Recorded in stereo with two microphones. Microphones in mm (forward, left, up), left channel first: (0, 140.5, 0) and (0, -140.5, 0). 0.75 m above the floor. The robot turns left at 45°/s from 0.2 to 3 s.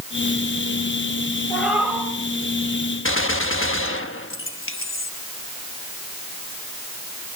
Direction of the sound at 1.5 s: 5° left (ahead or behind).